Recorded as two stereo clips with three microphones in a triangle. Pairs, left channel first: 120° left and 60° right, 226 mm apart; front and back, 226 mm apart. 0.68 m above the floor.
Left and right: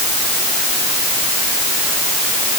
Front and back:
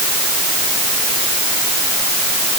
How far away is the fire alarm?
I don't hear a fire alarm.